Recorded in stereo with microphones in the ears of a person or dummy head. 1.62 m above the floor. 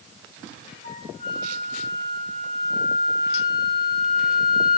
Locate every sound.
0.8 s a flute: 50° left (ahead or behind), 3 m